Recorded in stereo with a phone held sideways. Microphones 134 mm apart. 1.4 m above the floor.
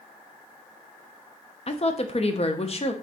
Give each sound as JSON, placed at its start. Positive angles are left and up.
{"t": 1.7, "sound": "a woman speaking", "side_deg": 50, "distance_m": 0.5}